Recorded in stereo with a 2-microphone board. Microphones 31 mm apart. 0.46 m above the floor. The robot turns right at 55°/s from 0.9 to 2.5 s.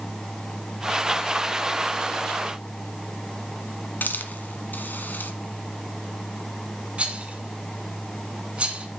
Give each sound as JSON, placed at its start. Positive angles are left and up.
{"t": 4.0, "sound": "a hiss", "side_deg": 70, "distance_m": 1.5}
{"t": 7.0, "sound": "a rattle", "side_deg": -40, "distance_m": 2.5}